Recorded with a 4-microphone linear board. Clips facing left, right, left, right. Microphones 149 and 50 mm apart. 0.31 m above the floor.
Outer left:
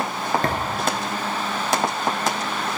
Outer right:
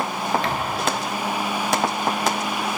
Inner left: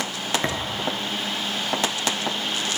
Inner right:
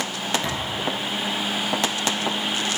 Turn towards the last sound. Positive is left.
turn(degrees=50)  # may be behind; listen again after turning